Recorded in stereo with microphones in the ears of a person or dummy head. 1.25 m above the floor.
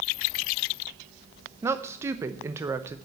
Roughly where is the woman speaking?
Centre.